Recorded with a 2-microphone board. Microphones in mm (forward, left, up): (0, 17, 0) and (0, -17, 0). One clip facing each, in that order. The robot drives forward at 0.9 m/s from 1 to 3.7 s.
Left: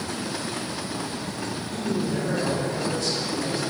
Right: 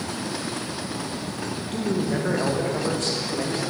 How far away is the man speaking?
About 1.9 m.